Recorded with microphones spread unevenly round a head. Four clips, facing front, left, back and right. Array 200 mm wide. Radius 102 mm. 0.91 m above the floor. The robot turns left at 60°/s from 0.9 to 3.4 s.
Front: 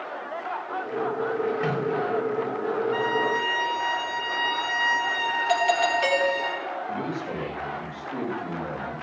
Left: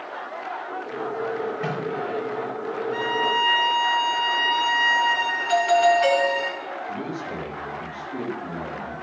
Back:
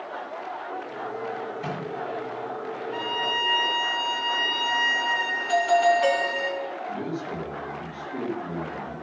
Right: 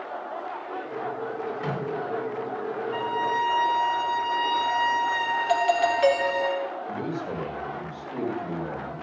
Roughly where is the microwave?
Ahead left.